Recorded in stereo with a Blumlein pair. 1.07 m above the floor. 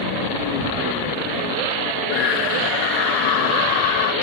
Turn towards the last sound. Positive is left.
turn(degrees=45)